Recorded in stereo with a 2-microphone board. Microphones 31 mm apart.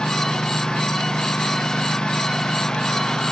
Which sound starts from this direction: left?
A lawn mower, at 0.0 s.